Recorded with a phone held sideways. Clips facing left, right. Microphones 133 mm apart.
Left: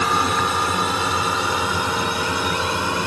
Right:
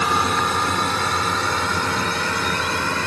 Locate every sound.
0.0 s a drone: centre (ahead or behind); by 3.1 s 15° left (ahead or behind)